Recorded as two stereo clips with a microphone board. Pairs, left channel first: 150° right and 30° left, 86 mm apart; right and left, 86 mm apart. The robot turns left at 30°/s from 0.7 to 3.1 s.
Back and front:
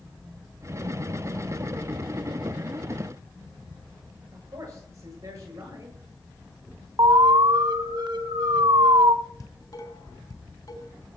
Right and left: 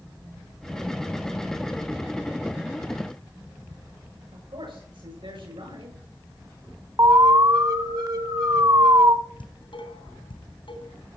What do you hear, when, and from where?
4.3 s a man speaking: 85° left, 9 m
7.0 s an alarm: 55° left, 1.8 m
9.4 s dishes clattering: 110° right, 3 m